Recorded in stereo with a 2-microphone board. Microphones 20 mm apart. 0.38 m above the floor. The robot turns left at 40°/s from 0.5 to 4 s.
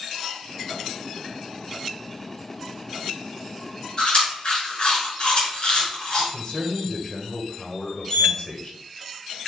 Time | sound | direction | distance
4.0 | chewing | 50° left (ahead or behind) | 2 m
6.3 | a man speaking | 40° left (ahead or behind) | 1.3 m
8.1 | a sliding door | 40° left (ahead or behind) | 1.9 m